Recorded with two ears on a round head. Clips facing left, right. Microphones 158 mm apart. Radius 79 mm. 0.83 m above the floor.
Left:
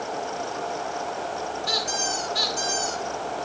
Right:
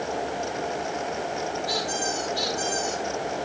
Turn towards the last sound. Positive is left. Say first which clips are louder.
# right 1 dB
turn(degrees=75)  # may be behind; listen again after turning